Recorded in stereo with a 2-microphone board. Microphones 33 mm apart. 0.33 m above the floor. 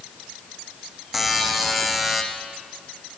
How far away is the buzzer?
About 2.5 m.